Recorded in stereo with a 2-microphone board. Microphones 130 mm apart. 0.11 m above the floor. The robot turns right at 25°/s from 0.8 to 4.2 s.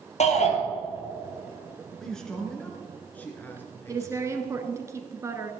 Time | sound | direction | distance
0.2 | a shout | 60° left (ahead or behind) | 2 m
2.0 | a man speaking | 5° left (ahead or behind) | 1.7 m
3.9 | a woman speaking | 25° right (ahead or behind) | 1.2 m